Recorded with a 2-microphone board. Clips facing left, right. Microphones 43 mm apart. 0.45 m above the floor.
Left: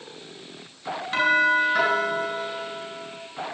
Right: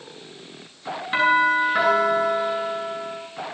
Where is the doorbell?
10° right (ahead or behind), 10 m.